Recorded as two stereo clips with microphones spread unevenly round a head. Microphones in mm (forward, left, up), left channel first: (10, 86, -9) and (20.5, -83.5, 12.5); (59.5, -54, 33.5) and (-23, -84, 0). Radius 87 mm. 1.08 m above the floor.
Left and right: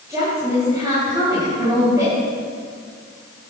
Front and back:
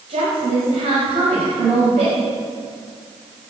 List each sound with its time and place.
0.1 s a woman speaking: 160° right, 5 m